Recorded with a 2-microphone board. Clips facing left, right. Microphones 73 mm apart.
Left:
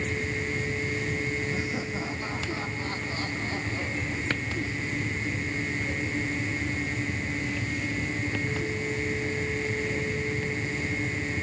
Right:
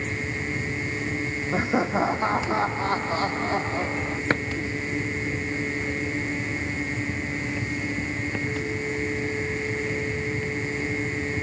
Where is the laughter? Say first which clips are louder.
Right 8 dB; 55° right (ahead or behind); by 4.2 s 45° right (ahead or behind).